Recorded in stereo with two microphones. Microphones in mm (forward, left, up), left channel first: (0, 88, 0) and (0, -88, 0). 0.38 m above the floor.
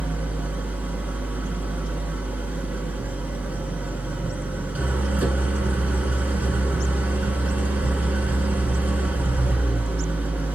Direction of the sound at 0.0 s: 10° right (ahead or behind).